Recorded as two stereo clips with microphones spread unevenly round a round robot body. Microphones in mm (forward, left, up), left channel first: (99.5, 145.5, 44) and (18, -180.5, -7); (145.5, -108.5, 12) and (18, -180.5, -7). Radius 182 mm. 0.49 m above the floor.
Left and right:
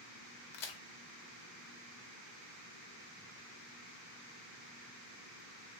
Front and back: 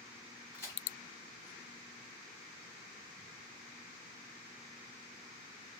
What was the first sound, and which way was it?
A crack, 75° left.